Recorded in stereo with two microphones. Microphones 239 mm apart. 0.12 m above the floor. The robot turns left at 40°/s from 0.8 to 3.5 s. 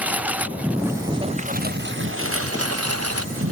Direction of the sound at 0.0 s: 5° right.